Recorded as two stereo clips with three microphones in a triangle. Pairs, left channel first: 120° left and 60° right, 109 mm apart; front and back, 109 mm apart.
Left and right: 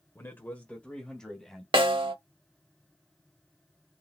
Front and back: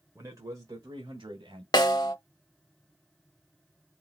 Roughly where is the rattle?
I don't hear a rattle.